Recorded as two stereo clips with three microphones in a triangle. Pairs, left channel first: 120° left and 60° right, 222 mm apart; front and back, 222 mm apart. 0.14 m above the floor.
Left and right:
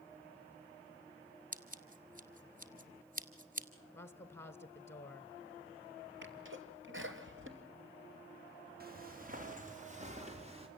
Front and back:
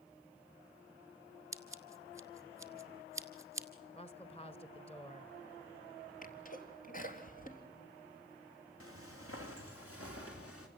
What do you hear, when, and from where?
1.5 s scissors: 105° right, 1.6 m
3.9 s a woman speaking: 50° left, 1.3 m
6.2 s a sneeze: 45° right, 3.5 m
8.8 s footsteps: 15° right, 4 m; by 10.7 s 5° left, 4.5 m